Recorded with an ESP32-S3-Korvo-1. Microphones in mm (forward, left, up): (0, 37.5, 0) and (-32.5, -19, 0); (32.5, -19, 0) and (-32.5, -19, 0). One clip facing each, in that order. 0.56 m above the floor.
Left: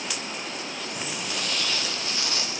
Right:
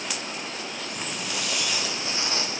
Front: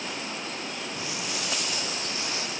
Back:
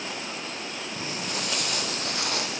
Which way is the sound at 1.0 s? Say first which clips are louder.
Even, back 3 dB; 135° left.